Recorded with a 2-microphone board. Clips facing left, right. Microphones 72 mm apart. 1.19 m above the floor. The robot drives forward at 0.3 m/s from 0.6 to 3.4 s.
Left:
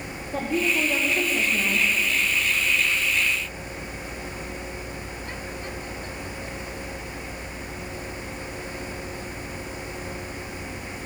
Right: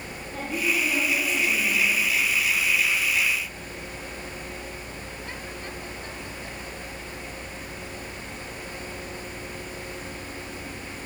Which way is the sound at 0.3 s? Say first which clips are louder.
Left 3 dB; 65° left (ahead or behind).